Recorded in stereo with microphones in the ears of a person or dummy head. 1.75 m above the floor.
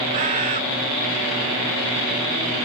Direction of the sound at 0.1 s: 25° right (ahead or behind).